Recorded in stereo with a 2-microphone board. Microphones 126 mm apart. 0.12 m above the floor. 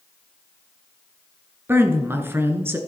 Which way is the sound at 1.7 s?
20° right (ahead or behind).